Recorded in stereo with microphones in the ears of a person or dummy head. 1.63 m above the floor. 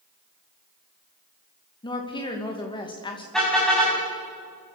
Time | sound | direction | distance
1.8 | a woman speaking | 25° left (ahead or behind) | 2.5 m
3.3 | a car horn | centre (ahead or behind) | 7 m